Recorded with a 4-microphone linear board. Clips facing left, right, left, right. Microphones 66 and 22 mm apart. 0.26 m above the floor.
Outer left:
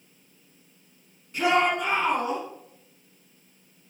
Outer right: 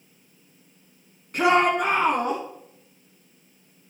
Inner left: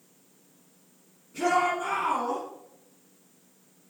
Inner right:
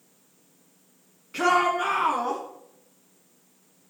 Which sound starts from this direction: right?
A shout, at 1.3 s.